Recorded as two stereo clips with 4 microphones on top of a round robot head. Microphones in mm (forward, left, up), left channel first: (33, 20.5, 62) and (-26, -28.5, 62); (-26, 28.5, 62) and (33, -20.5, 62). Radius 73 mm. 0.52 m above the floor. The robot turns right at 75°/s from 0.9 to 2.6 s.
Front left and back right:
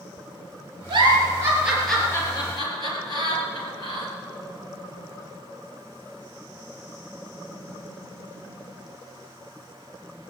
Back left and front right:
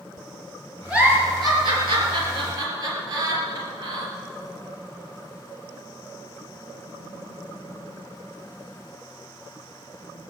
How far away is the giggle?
About 3 m.